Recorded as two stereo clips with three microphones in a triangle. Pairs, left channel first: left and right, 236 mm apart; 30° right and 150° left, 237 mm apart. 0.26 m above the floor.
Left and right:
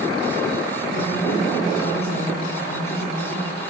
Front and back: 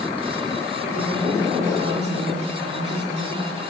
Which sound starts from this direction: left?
A woman speaking, at 0.8 s.